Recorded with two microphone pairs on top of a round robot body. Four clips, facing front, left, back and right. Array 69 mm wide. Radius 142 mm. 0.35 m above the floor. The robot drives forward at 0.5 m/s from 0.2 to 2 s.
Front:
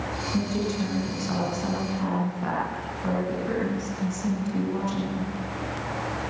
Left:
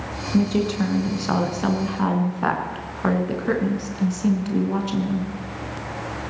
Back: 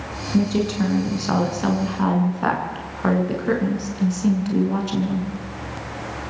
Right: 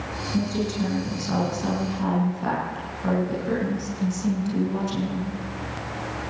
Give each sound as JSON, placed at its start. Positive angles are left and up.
{"t": 0.3, "sound": "a woman speaking", "azimuth_deg": 125, "distance_m": 5.5}